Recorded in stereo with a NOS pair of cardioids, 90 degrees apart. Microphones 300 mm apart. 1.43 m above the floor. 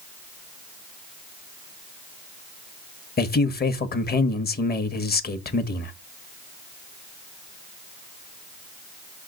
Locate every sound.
3.2 s a man speaking: 35° left, 1.3 m